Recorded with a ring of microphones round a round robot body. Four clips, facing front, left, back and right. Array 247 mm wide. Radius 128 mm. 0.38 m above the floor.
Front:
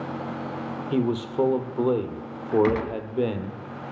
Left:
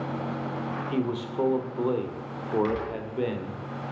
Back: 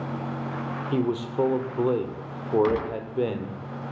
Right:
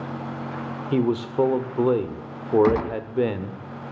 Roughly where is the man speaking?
Right.